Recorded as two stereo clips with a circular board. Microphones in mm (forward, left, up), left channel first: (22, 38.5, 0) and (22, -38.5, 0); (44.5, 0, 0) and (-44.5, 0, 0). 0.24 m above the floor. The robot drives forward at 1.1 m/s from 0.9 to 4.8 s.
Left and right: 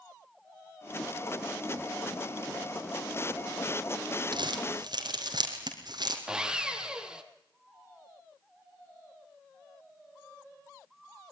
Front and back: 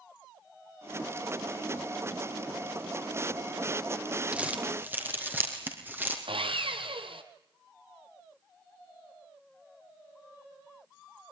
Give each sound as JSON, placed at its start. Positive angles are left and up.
{"t": 4.3, "sound": "crumpling", "azimuth_deg": -105, "distance_m": 3.0}
{"t": 6.3, "sound": "sawing", "azimuth_deg": -170, "distance_m": 1.9}